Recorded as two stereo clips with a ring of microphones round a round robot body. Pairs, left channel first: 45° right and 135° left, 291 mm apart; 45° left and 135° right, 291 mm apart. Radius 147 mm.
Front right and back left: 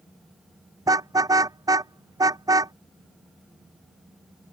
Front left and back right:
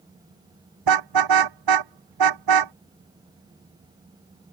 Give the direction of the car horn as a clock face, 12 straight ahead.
5 o'clock.